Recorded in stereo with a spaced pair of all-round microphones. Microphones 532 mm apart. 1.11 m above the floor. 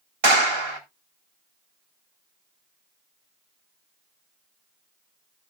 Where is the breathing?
I don't hear breathing.